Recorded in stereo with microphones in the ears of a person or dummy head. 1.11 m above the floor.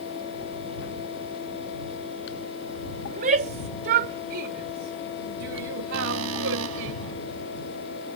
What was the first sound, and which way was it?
A shout, 45° right (ahead or behind).